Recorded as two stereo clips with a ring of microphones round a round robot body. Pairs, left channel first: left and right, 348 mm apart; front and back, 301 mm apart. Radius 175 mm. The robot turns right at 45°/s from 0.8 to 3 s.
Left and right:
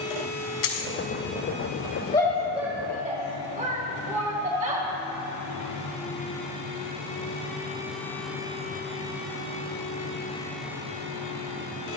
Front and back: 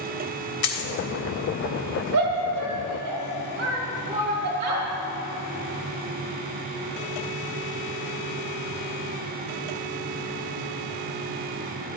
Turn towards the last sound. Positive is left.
turn(degrees=-155)